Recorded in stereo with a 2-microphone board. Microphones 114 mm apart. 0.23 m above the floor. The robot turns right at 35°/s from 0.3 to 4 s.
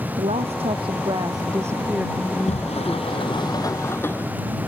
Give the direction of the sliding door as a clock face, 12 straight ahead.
9 o'clock.